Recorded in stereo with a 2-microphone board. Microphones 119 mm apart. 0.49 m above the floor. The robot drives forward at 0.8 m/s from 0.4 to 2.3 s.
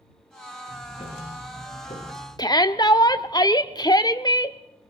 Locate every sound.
0.7 s ticking: 80° left, 7.5 m; by 2.3 s 70° left (ahead or behind), 8 m
2.4 s a shout: 35° left (ahead or behind), 1.0 m